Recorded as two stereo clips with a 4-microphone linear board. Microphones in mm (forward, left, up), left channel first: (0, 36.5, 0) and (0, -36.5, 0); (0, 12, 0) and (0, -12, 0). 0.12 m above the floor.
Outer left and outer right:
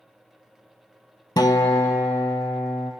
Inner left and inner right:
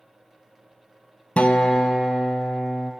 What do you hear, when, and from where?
1.4 s a guitar: 70° left (ahead or behind), 0.7 m